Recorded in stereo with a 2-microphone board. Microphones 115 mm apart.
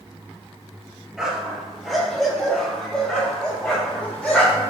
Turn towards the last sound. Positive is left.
turn(degrees=10)  # may be behind; listen again after turning